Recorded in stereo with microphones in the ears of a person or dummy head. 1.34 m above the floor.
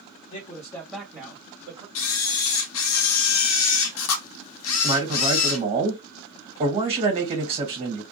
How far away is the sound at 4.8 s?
About 1.4 m.